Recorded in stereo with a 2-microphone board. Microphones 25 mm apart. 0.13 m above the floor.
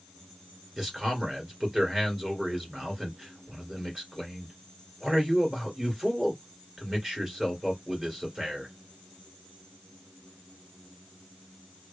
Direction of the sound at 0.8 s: 25° right (ahead or behind).